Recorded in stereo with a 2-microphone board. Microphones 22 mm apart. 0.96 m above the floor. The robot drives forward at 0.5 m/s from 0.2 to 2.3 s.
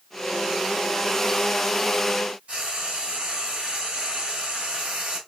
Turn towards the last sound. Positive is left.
turn(degrees=-65)  # may be behind; listen again after turning